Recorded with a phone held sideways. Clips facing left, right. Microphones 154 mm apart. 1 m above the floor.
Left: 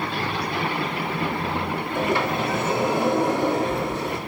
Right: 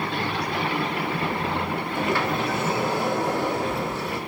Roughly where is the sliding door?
Left.